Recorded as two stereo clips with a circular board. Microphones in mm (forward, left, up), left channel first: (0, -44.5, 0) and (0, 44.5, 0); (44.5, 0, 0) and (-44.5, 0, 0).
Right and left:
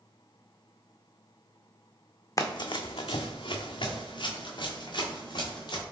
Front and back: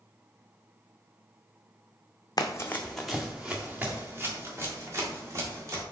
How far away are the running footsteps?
About 0.5 m.